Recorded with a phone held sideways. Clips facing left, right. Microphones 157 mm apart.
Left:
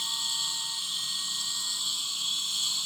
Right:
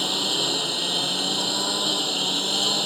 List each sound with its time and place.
0.0 s a lawn mower: 75° right (ahead or behind)